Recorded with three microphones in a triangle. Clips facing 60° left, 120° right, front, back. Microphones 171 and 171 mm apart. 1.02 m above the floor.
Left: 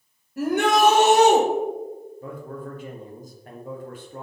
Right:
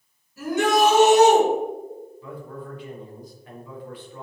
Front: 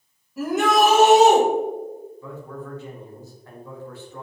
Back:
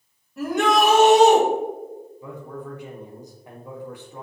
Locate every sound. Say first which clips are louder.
0.4 s a shout: even, front 1 dB; 90° left, 1.3 m
2.2 s a man speaking: left 4 dB, even; 105° left, 1.0 m